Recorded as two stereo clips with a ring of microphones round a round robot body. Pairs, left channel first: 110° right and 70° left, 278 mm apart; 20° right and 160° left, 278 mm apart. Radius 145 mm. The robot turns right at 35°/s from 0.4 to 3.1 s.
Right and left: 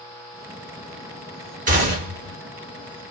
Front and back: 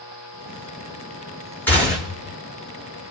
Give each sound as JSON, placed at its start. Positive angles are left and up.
{"t": 1.7, "sound": "a gunshot", "azimuth_deg": 55, "distance_m": 1.5}